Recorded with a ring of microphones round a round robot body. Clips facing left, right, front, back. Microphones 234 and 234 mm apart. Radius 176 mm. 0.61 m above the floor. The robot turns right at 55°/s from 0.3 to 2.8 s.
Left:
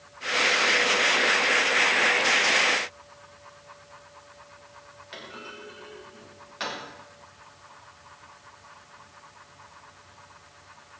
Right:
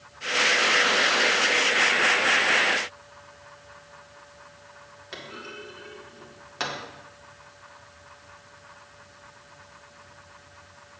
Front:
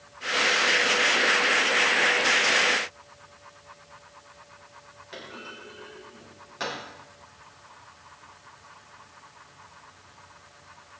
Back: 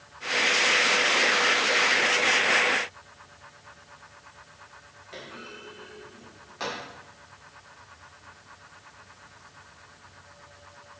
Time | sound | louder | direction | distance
5.1 | a clunk | right 3 dB, even | 75° right | 2 m